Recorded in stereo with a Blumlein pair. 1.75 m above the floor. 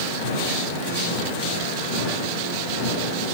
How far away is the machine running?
About 10 m.